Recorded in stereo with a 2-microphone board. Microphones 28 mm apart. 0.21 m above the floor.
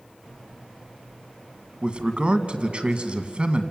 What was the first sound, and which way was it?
A man speaking, 40° right (ahead or behind).